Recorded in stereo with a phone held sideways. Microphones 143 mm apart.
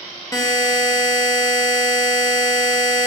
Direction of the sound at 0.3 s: 20° left (ahead or behind).